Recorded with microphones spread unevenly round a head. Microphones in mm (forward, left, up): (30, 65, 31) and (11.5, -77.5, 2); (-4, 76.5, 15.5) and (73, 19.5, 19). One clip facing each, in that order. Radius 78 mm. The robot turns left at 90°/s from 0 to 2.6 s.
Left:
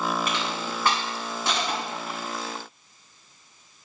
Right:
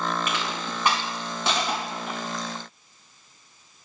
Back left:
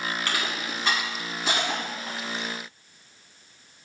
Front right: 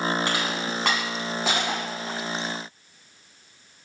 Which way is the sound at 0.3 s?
35° left.